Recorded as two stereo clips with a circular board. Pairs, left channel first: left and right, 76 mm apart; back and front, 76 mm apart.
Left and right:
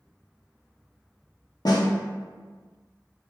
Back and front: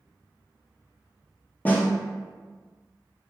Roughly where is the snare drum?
Behind left.